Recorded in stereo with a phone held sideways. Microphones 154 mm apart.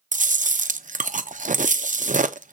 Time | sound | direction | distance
0.1 | chewing | 55° right (ahead or behind) | 0.5 m